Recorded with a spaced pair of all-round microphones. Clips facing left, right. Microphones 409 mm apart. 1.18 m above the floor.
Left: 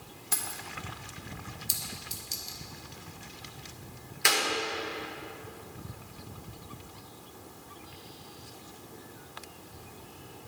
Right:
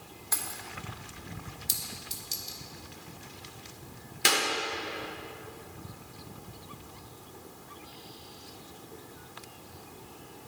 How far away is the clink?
About 0.8 m.